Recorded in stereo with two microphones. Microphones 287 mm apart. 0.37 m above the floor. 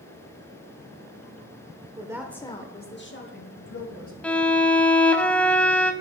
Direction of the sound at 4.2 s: 5° left (ahead or behind).